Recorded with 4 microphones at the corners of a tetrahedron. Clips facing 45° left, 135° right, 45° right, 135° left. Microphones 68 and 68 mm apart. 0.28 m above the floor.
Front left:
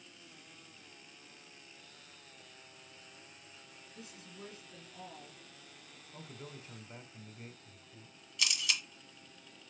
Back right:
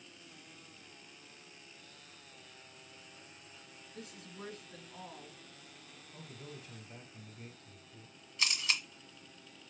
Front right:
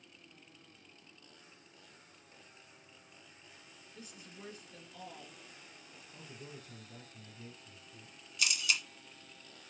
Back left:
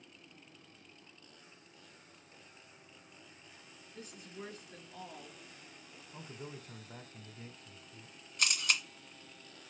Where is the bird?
No bird in this recording.